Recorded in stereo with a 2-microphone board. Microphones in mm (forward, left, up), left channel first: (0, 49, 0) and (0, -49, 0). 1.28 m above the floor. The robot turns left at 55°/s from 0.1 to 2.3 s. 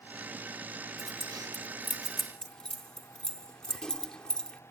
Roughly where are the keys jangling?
Right.